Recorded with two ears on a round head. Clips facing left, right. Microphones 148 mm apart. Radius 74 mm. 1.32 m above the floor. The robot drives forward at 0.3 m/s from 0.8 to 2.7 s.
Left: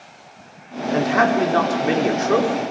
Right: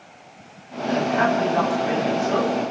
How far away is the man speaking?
About 4.5 m.